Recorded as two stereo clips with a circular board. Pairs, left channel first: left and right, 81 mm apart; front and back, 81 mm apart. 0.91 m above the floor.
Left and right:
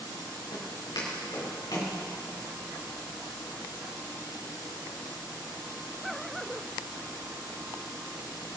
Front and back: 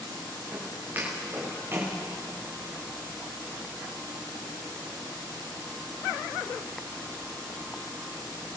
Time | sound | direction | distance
0.5 | footsteps | 115° left | 6 m